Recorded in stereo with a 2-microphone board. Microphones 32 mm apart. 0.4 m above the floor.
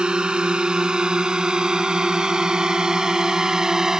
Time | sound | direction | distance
0.0 | a drone | 30° right (ahead or behind) | ?